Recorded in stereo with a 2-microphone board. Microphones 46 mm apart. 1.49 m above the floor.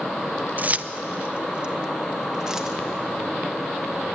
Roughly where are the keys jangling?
Right.